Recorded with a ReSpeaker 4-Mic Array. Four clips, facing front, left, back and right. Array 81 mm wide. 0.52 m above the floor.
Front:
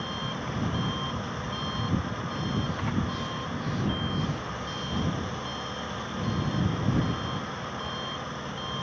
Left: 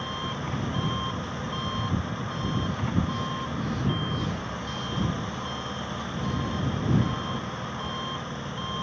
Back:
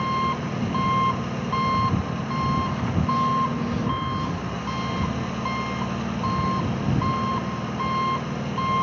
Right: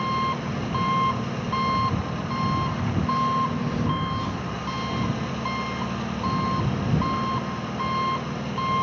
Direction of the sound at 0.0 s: 145° right.